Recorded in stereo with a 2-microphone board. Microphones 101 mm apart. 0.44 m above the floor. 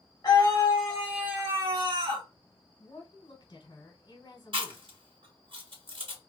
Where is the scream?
35° left (ahead or behind), 1.1 m; by 2.3 s 55° right (ahead or behind), 1.5 m.